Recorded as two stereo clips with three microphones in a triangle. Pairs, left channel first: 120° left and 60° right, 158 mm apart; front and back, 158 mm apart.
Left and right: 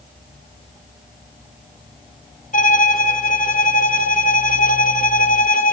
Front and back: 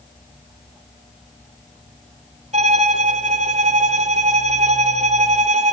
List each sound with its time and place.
2.5 s a violin: 145° left, 0.7 m